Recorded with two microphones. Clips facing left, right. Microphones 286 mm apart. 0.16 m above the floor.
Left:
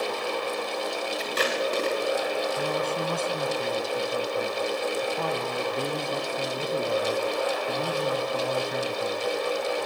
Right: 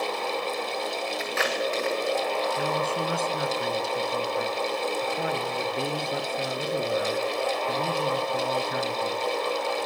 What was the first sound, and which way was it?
Tape being pulled, 40° left (ahead or behind).